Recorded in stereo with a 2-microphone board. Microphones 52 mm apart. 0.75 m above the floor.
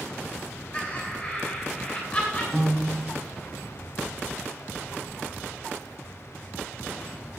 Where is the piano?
10° left (ahead or behind), 3.5 m.